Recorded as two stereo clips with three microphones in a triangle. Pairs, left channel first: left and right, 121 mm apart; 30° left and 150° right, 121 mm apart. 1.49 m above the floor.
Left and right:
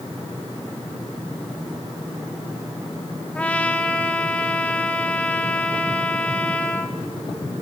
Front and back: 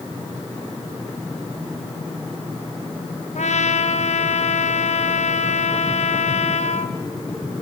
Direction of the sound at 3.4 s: 10° left.